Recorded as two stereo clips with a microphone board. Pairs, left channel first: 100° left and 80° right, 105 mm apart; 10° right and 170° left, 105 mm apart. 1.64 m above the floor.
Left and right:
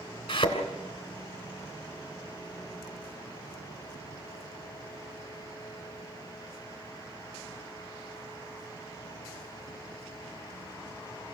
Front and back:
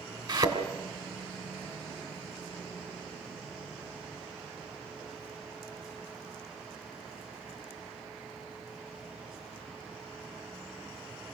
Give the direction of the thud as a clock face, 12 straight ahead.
8 o'clock.